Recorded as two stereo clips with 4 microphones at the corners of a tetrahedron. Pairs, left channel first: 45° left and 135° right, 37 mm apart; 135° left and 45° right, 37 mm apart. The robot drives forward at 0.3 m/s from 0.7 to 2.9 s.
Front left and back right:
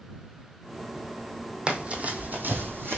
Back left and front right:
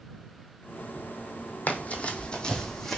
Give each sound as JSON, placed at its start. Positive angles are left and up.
{"t": 1.7, "sound": "running footsteps", "azimuth_deg": 165, "distance_m": 0.8}